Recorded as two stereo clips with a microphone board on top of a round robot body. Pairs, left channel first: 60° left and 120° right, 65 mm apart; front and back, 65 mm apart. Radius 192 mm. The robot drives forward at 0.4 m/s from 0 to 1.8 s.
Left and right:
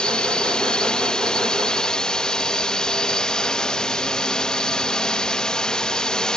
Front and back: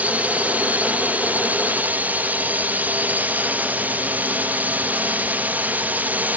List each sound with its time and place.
0.0 s a drone: 125° left; by 6.4 s 130° left